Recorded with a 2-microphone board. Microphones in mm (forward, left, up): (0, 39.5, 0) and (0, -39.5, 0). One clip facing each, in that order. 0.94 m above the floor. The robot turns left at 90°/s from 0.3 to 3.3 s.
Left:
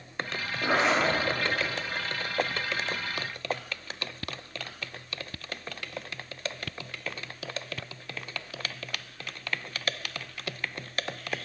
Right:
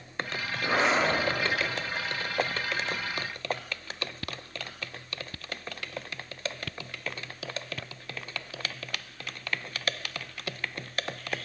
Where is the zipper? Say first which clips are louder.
Left 1 dB; 110° left, 2 m; by 1.1 s 65° left, 2 m.